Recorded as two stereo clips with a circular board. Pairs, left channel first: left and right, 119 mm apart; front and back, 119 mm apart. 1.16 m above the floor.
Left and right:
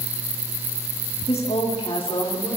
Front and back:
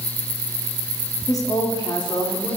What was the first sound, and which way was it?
A woman speaking, 60° left.